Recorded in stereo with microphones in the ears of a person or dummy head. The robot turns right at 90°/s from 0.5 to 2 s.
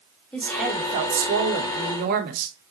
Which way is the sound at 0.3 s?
175° left.